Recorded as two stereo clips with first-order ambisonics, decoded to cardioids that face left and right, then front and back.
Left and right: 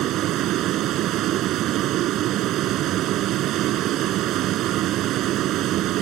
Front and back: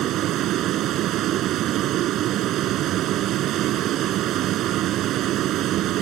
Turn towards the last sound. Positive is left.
turn(degrees=-135)